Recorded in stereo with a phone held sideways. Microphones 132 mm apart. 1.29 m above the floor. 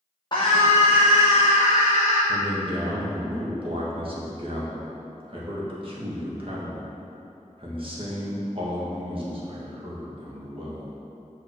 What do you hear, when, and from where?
0.3 s a scream: 35° left (ahead or behind), 0.8 m; by 2.2 s 80° left, 1.5 m
2.3 s a man speaking: 40° right (ahead or behind), 1.7 m